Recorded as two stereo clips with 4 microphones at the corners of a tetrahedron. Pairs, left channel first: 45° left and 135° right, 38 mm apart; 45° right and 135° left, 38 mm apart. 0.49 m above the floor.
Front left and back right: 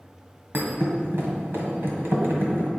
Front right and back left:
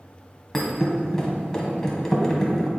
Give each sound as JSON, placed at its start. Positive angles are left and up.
{"t": 0.5, "sound": "a thud", "azimuth_deg": -120, "distance_m": 1.6}